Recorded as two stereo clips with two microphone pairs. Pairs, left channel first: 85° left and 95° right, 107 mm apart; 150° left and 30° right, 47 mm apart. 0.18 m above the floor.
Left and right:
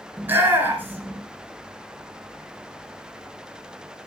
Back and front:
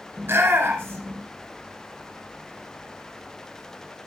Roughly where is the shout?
Ahead right.